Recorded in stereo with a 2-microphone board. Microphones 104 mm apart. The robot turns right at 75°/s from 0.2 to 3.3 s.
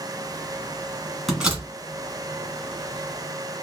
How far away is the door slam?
About 1.6 m.